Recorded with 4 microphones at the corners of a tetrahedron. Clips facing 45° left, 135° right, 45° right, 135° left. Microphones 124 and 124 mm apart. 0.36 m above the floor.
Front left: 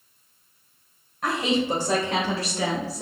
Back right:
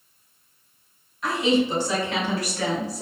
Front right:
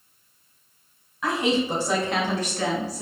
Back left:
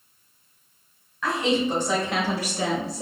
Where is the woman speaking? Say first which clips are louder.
Back right 3 dB, even; 30° left, 1.7 m; by 3.0 s 135° left, 1.0 m.